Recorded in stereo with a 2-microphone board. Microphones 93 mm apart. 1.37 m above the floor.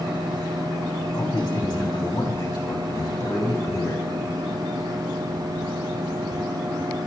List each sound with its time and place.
1.1 s a man speaking: 55° left (ahead or behind), 4.5 m; by 4.1 s 45° left (ahead or behind), 6.5 m